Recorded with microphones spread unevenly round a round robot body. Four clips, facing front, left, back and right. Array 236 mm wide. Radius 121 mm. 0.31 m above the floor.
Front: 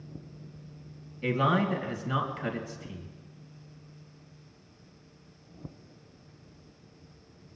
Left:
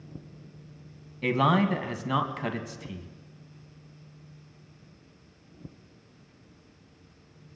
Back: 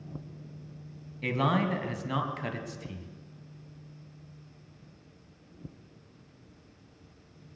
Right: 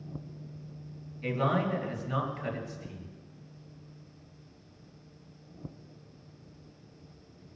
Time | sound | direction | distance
1.2 | a man speaking | 100° left | 2.5 m